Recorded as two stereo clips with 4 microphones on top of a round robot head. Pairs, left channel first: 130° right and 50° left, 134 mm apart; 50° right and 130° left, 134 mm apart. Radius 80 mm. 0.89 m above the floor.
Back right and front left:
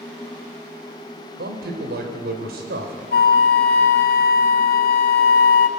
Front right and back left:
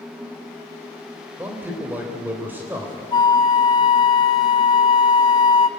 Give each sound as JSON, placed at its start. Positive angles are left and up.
{"t": 1.4, "sound": "a man speaking", "azimuth_deg": 55, "distance_m": 3.5}
{"t": 3.1, "sound": "a flute", "azimuth_deg": -110, "distance_m": 0.7}